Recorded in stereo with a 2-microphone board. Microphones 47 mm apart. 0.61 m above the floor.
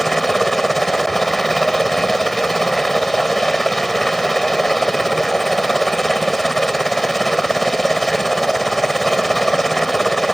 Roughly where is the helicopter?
Centre.